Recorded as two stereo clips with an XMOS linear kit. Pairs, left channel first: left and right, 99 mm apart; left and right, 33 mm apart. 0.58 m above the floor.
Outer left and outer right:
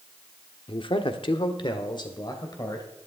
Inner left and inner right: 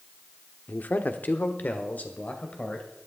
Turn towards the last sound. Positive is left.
turn(degrees=40)  # may be behind; listen again after turning